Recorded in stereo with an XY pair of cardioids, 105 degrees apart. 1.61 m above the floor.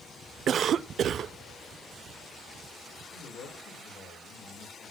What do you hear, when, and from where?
0.5 s a cough: 55° right, 0.6 m
3.1 s a man speaking: 60° left, 6.5 m